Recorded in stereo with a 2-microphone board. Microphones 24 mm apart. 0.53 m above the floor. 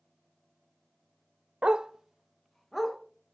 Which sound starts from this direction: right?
A dog barking, at 1.6 s.